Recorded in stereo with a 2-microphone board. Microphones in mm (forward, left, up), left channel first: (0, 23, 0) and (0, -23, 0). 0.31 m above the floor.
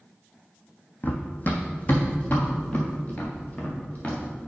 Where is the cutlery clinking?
No cutlery clinking in this recording.